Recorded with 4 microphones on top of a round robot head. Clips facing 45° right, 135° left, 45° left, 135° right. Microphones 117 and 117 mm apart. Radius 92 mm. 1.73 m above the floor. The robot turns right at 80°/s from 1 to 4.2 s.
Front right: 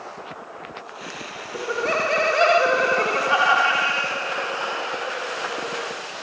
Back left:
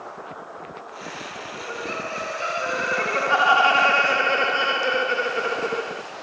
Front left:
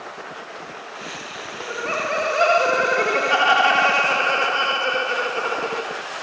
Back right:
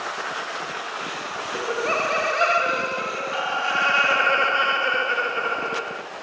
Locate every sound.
1.5 s laughter: 90° right, 1.0 m; by 6.0 s 120° left, 1.0 m